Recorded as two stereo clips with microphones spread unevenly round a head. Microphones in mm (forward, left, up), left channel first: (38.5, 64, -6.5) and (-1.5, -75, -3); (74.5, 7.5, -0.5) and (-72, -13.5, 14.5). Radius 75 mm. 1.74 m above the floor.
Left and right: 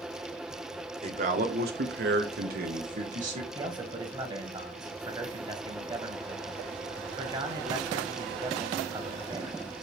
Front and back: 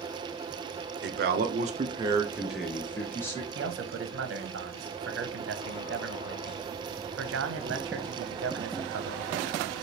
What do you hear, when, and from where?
1.0 s a man speaking: 160° right, 0.9 m; by 3.5 s 65° right, 1.4 m
3.5 s a man speaking: 170° right, 1.0 m